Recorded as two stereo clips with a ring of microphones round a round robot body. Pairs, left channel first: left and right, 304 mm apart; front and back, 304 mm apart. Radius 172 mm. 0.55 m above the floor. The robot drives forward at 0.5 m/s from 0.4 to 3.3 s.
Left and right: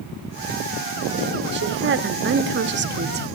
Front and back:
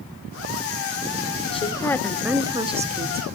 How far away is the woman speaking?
About 1.0 m.